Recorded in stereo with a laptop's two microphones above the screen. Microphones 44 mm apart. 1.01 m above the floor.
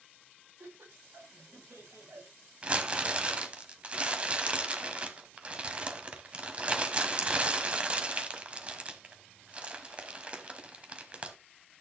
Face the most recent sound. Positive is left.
turn(degrees=-25)  # may be behind; listen again after turning